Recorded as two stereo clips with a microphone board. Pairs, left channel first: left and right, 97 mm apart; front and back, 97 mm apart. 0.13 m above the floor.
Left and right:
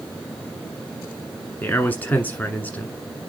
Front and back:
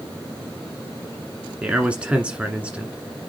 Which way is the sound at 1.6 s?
125° left.